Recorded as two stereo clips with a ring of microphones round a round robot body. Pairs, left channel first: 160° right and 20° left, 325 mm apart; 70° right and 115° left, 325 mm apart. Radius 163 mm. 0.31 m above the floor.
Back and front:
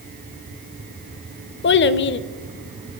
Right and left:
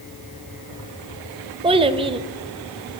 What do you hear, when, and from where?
1.6 s a child speaking: 175° left, 0.6 m